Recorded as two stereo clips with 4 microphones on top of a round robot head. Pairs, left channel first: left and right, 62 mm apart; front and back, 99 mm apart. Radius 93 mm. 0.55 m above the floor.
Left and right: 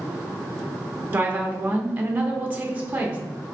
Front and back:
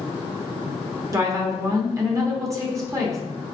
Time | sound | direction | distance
1.1 | a woman speaking | 145° right | 0.9 m